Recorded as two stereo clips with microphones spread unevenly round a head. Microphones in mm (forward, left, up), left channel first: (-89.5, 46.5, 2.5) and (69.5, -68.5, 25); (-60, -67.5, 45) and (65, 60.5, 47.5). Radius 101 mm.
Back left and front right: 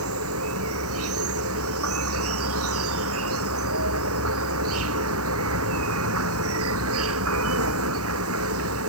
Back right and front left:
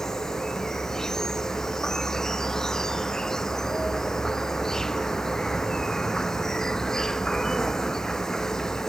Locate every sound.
0.0 s an insect: 45° right